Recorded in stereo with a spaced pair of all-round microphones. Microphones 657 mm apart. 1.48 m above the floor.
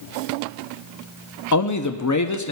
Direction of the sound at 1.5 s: 30° left (ahead or behind).